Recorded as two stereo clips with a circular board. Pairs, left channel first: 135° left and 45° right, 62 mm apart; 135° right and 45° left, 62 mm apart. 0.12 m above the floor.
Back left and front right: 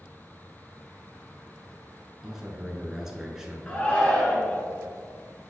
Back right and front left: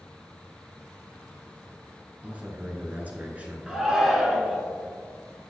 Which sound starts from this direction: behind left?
A shout, at 3.7 s.